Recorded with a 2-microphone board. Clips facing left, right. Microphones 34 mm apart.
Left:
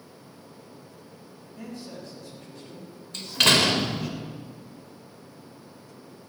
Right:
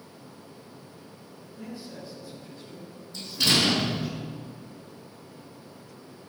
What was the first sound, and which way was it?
A man speaking, 70° left (ahead or behind).